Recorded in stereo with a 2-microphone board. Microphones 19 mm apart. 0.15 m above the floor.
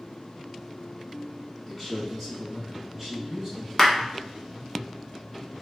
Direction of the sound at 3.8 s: 10° left (ahead or behind).